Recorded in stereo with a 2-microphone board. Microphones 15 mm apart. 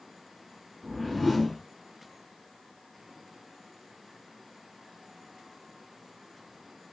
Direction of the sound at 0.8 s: 10° left (ahead or behind).